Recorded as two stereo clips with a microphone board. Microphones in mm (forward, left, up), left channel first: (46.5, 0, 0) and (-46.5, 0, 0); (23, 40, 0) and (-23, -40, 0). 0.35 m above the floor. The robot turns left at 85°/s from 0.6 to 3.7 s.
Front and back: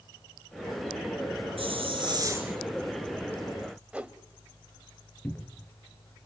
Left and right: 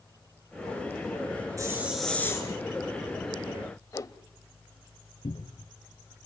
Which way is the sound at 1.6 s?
175° right.